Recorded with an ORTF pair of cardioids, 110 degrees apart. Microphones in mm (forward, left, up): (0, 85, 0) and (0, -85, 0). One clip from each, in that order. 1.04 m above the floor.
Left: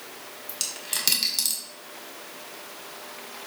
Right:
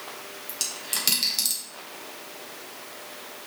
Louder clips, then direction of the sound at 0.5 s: Even; 10° left.